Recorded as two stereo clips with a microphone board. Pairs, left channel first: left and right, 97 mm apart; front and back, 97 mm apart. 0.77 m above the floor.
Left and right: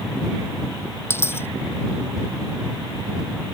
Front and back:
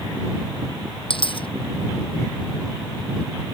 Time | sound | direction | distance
1.1 | a dropped coin | 25° left | ?